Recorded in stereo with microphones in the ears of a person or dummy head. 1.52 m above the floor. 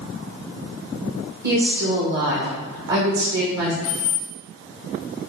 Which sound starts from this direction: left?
Keys jangling, at 3.8 s.